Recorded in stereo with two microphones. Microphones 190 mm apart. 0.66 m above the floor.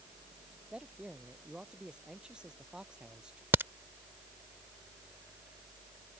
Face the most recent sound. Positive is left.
turn(degrees=-10)  # may be behind; listen again after turning